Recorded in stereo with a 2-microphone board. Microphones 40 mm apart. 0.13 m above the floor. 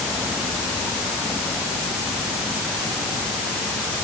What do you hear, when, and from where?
Only background noise.